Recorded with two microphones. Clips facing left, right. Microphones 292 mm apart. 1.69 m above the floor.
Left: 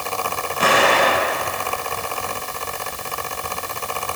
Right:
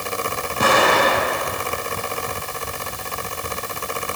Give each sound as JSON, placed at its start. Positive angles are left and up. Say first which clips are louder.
{"t": 0.6, "sound": "an explosion", "louder": "even", "side_deg": -45, "distance_m": 6.5}